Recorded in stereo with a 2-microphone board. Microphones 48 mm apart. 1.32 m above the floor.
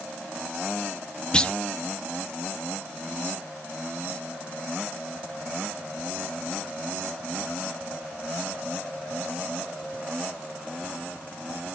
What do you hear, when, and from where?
1.3 s a clunk: 20° left (ahead or behind), 0.7 m